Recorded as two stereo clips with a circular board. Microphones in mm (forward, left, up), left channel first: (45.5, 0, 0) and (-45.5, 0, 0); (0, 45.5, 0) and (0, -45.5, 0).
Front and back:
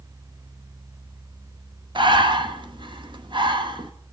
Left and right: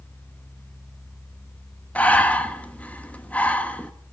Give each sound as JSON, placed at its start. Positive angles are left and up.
{"t": 1.9, "sound": "breathing", "azimuth_deg": 165, "distance_m": 1.1}